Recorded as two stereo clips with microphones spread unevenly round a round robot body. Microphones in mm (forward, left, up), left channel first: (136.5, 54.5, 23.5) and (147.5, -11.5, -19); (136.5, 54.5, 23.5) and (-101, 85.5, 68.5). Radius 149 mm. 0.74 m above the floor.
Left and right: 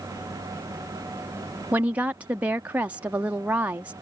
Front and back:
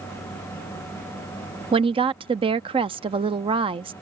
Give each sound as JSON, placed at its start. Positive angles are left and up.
{"t": 1.7, "sound": "a woman speaking", "azimuth_deg": -115}